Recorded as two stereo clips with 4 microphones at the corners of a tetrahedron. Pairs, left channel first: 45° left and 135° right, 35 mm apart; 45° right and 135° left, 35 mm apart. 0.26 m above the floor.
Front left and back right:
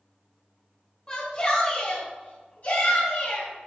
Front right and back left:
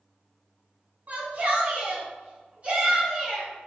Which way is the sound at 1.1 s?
110° left.